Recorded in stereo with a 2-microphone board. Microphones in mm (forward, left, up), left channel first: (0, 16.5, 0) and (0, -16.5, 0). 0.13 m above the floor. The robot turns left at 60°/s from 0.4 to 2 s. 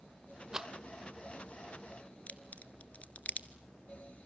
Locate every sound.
0.5 s a rattle: 20° right (ahead or behind), 0.9 m; by 0.7 s 10° right (ahead or behind), 0.9 m
2.3 s a crack: 45° left (ahead or behind), 0.9 m